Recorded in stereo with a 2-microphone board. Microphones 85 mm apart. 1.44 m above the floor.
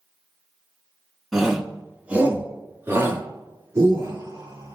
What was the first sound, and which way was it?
A shout, centre (ahead or behind).